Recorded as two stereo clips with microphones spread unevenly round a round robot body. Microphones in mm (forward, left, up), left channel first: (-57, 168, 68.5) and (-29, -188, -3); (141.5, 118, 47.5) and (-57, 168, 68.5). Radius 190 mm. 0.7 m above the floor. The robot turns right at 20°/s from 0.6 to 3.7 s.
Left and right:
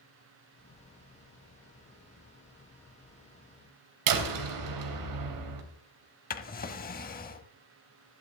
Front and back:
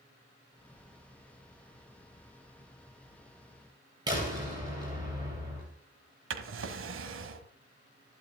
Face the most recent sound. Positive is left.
turn(degrees=155)